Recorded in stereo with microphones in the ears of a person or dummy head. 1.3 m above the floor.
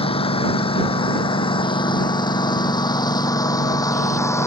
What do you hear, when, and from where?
0.0 s a lawn mower: 35° left (ahead or behind); by 4.5 s 20° left (ahead or behind)